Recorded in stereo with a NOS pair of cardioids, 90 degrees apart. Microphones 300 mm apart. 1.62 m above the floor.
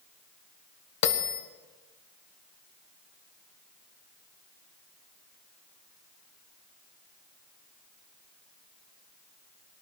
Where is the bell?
60° left, 1.4 m.